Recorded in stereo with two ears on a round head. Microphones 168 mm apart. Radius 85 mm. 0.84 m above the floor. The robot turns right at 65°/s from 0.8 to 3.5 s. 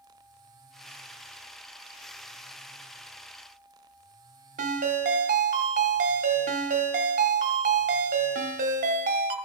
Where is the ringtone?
45° right (ahead or behind), 1.3 m.